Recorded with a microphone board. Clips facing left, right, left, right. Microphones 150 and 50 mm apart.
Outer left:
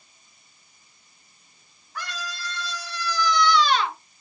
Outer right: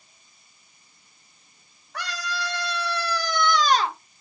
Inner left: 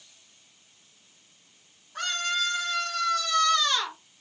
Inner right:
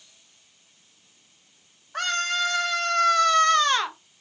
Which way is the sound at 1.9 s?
75° right (ahead or behind).